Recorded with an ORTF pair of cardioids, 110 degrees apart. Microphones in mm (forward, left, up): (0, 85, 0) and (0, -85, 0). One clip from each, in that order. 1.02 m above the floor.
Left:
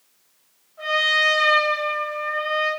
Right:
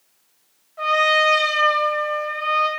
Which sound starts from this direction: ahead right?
A trumpet, at 0.8 s.